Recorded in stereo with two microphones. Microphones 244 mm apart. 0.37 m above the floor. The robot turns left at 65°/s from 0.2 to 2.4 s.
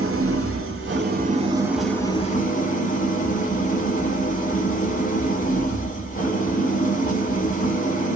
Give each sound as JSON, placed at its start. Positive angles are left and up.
{"t": 0.0, "sound": "an engine running", "azimuth_deg": -75, "distance_m": 1.0}